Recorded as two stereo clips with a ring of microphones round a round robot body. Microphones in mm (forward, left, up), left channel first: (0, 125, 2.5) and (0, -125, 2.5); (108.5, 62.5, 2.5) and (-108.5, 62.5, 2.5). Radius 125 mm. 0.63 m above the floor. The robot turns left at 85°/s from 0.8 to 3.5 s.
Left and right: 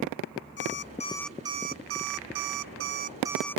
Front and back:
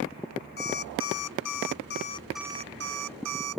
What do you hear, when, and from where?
0.6 s an alarm clock: 40° left; by 3.6 s 175° left